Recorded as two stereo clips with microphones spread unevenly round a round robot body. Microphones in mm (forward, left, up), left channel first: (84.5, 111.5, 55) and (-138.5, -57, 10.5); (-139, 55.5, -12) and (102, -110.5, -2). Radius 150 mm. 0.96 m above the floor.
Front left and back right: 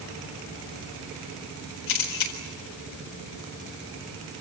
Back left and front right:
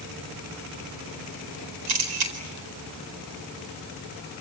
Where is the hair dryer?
I don't hear a hair dryer.